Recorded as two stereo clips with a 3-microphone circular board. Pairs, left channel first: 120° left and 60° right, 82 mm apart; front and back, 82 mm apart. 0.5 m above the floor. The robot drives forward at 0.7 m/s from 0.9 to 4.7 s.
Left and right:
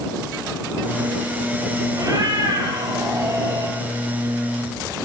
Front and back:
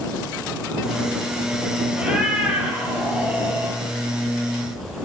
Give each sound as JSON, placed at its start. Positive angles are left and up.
{"t": 1.9, "sound": "a cat meowing", "azimuth_deg": -100, "distance_m": 8.0}